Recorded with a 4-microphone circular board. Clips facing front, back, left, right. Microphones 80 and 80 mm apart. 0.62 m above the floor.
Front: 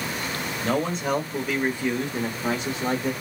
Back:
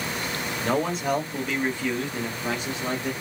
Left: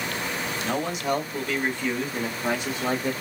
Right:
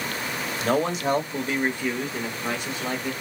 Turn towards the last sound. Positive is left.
turn(degrees=45)